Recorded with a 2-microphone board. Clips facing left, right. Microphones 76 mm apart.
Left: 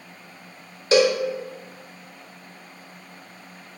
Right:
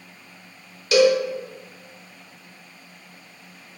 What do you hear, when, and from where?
0.9 s a cowbell: 30° left (ahead or behind), 0.6 m